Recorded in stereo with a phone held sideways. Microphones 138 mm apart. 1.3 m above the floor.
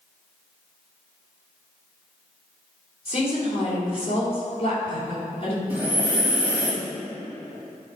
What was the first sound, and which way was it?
A woman speaking, 45° left (ahead or behind).